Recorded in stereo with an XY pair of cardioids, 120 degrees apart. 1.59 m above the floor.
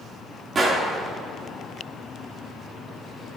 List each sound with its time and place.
0.6 s a gunshot: 35° right, 2 m